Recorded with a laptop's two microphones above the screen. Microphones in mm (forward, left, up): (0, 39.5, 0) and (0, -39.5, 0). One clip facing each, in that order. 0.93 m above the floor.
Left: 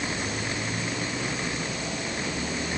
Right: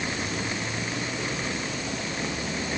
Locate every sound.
Only background noise.